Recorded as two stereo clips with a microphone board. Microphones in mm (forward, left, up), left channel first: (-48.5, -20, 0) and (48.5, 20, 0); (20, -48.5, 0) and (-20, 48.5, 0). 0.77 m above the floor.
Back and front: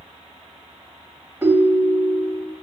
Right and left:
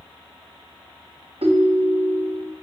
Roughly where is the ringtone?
Left.